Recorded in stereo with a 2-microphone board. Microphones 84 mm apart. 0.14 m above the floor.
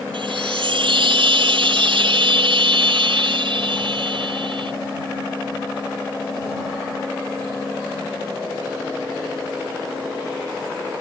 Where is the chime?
80° right.